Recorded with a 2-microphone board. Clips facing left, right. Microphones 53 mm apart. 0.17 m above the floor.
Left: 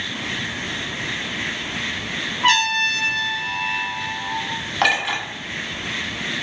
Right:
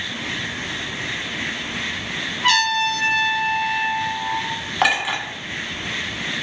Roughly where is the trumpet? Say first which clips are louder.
Even; left.